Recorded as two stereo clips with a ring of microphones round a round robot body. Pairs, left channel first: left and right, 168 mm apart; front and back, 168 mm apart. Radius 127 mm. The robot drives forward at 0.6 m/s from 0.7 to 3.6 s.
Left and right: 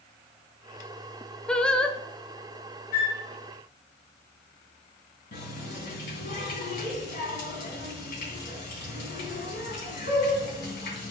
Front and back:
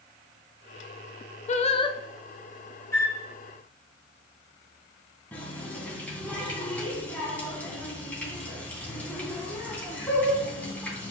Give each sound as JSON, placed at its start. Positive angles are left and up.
{"t": 1.5, "sound": "singing", "azimuth_deg": 5, "distance_m": 0.8}
{"t": 2.9, "sound": "a flute", "azimuth_deg": 75, "distance_m": 3.0}
{"t": 5.3, "sound": "a running tap", "azimuth_deg": 80, "distance_m": 2.5}